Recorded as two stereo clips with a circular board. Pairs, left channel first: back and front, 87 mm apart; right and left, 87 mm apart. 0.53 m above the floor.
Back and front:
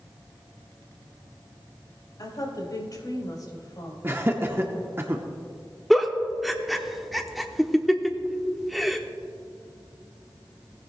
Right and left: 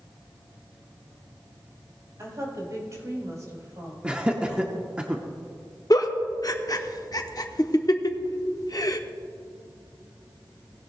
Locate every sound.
2.2 s a woman speaking: 140° left, 3.5 m
4.0 s laughter: 25° left, 0.8 m
5.9 s a giggle: 90° right, 0.7 m